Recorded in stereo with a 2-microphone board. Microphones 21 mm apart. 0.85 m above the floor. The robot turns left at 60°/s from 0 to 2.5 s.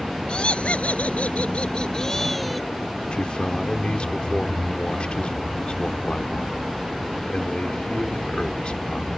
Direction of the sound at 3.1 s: 55° left (ahead or behind).